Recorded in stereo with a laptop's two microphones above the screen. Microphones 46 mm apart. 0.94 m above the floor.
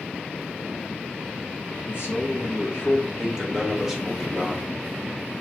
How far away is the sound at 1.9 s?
About 1.6 m.